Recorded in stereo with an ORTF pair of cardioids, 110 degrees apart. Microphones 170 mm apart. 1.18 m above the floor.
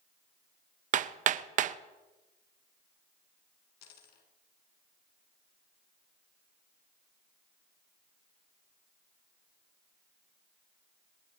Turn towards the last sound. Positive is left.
turn(degrees=70)